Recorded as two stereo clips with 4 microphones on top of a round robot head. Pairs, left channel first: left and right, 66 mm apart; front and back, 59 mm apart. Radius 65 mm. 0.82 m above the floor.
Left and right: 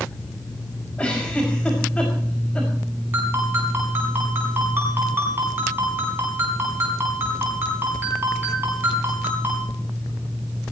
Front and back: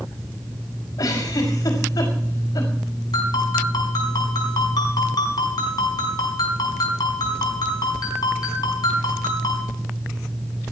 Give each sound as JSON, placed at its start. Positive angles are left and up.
{"t": 1.0, "sound": "a giggle", "azimuth_deg": 15, "distance_m": 5.5}
{"t": 3.1, "sound": "a ringtone", "azimuth_deg": -25, "distance_m": 5.0}